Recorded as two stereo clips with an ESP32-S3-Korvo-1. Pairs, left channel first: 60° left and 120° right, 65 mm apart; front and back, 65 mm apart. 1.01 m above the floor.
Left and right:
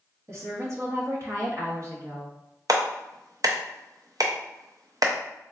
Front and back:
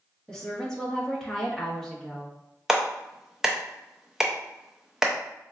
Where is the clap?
95° right, 0.6 m.